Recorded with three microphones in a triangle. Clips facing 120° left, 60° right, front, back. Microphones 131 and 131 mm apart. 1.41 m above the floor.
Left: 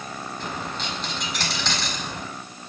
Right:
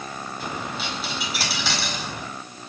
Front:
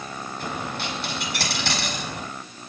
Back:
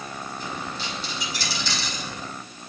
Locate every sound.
0.4 s a dropped coin: 25° left, 5 m